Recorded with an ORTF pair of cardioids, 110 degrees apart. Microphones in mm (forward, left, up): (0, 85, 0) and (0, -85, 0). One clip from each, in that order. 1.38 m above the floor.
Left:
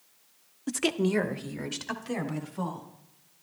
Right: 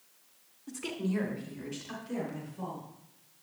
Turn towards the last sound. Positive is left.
turn(degrees=80)